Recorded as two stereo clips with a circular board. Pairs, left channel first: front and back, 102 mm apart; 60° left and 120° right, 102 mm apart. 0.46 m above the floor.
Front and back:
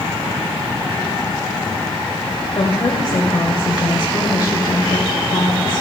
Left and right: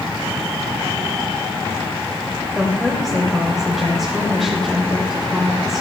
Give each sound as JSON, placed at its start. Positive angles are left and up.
{"t": 2.5, "sound": "a woman speaking", "azimuth_deg": -30, "distance_m": 2.0}